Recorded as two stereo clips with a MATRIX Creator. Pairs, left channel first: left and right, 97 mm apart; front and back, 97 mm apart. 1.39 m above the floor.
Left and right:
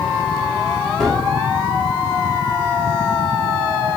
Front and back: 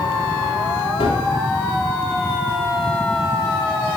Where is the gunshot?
5° left, 1.8 m.